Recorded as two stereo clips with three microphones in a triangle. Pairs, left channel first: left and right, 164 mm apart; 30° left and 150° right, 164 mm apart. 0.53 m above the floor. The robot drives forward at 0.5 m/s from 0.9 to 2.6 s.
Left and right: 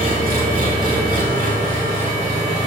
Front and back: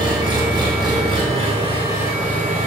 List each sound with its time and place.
0.0 s an engine running: 95° right, 1.6 m; by 2.7 s 125° right, 1.9 m